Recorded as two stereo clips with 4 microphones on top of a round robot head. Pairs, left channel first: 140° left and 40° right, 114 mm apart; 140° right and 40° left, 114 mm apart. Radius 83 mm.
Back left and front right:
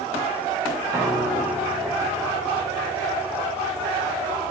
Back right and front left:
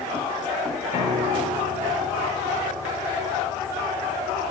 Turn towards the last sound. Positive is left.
turn(degrees=25)